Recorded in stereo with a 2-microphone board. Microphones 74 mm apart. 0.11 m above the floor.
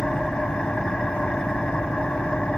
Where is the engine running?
15° left (ahead or behind), 3 m.